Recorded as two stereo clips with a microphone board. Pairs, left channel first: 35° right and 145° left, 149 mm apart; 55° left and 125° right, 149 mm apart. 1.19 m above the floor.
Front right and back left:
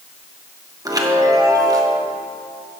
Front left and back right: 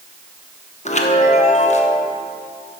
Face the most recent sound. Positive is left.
turn(degrees=85)